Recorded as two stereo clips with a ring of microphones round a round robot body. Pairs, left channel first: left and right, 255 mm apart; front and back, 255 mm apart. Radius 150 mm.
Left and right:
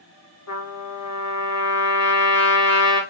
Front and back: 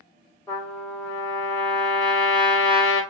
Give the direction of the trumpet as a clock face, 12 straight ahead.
9 o'clock.